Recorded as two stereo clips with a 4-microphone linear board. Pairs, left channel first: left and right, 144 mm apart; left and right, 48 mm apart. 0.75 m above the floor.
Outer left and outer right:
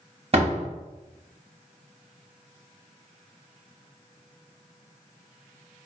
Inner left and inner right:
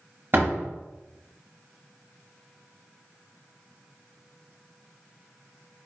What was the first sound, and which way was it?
A door slam, 45° right (ahead or behind).